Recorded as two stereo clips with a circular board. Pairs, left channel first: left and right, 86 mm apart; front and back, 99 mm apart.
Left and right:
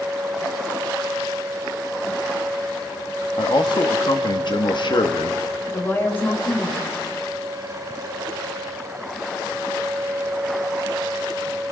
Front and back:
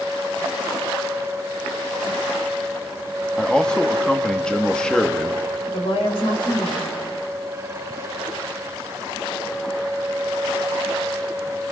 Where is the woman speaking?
25° left, 4.5 m.